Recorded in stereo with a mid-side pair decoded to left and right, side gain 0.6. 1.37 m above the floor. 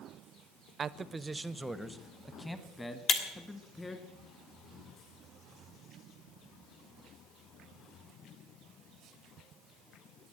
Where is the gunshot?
No gunshot in this recording.